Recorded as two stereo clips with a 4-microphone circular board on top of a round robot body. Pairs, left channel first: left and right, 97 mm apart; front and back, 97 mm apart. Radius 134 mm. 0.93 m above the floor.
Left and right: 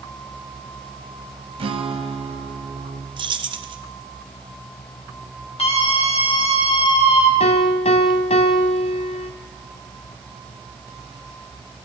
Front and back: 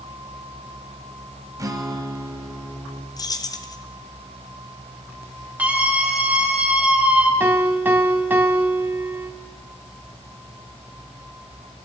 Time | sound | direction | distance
1.6 | a guitar | 125° right | 1.7 m
3.2 | keys jangling | 50° right | 1.5 m
5.6 | a scream | 105° left | 6 m
7.4 | a piano | 105° left | 1.8 m